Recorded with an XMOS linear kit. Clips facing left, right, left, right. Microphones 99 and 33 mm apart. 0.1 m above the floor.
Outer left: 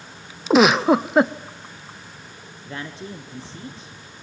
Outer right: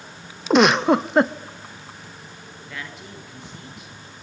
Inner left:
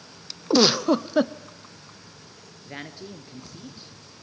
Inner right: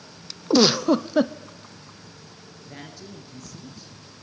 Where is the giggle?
Centre (ahead or behind), 0.6 m.